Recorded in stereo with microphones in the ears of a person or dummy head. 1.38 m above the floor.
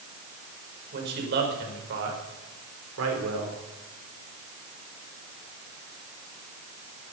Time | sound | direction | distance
0.9 | a man speaking | 65° right (ahead or behind) | 5 m